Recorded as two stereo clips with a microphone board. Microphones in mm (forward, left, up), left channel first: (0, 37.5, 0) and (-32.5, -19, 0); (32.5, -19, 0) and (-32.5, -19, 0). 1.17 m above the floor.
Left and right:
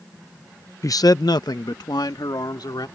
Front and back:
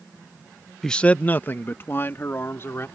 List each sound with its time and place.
0.8 s a man speaking: 85° left; by 2.9 s 55° left